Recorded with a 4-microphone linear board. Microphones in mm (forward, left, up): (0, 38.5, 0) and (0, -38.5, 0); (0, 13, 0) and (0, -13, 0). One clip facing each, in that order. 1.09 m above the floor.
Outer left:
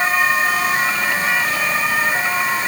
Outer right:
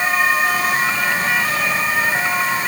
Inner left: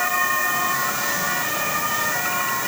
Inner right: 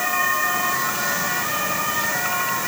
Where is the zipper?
No zipper in this recording.